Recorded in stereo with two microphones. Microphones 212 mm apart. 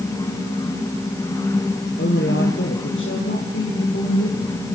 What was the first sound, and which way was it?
A woman speaking, 65° left (ahead or behind).